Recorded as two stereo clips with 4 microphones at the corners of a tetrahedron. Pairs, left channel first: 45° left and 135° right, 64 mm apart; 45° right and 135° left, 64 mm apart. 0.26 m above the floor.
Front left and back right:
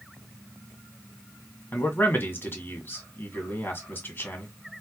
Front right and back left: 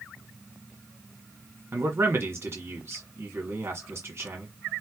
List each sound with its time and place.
1.7 s a man speaking: 95° left, 1.8 m